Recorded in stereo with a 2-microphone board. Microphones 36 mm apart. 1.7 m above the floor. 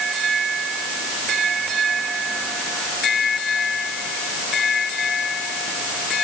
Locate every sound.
Only background noise.